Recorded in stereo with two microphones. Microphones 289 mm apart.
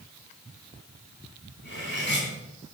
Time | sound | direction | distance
1.6 | cutlery clinking | 40° left (ahead or behind) | 3.5 m